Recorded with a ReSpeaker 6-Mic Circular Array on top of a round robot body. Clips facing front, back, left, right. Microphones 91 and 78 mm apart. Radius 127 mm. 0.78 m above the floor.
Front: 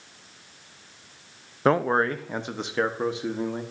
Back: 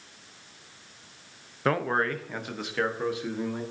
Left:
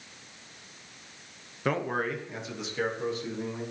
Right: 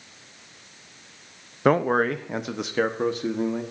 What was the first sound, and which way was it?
A man speaking, 60° right.